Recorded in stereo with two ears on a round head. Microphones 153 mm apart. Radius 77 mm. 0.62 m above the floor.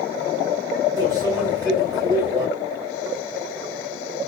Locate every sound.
1.0 s a microwave: 25° right (ahead or behind), 3 m